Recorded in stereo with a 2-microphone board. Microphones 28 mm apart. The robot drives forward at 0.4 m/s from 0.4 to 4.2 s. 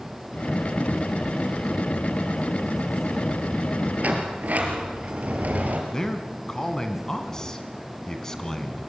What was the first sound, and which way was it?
A sliding door, 65° right (ahead or behind).